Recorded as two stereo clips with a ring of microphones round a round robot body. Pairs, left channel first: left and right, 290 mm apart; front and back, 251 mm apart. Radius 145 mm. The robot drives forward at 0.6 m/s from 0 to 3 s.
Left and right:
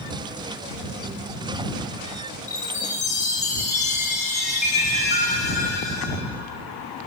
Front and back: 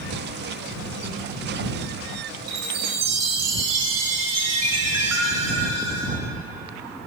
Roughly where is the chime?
Behind left.